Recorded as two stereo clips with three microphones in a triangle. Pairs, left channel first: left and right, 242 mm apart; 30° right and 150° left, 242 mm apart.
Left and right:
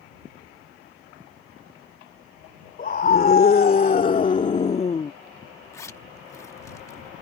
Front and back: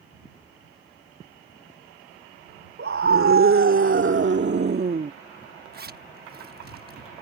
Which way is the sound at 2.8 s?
135° left.